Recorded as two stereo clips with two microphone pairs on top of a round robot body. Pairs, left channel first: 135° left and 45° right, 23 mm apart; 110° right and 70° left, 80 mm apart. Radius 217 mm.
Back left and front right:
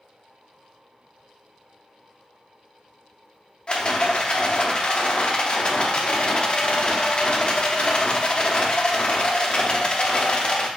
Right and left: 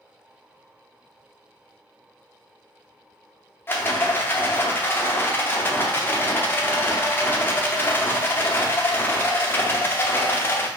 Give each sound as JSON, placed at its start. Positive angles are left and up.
{"t": 3.7, "sound": "a rattle", "azimuth_deg": -175, "distance_m": 0.6}